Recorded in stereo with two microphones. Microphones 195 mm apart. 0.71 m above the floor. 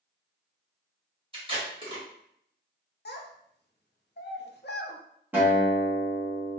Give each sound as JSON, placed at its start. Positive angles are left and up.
{"t": 1.3, "sound": "tape being pulled", "side_deg": -30, "distance_m": 1.5}
{"t": 3.0, "sound": "a child speaking", "side_deg": 60, "distance_m": 0.6}
{"t": 5.3, "sound": "a guitar", "side_deg": -10, "distance_m": 1.3}